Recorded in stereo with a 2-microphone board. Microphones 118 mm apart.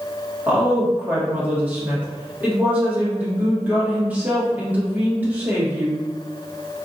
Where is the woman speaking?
15° right (ahead or behind), 1.2 m.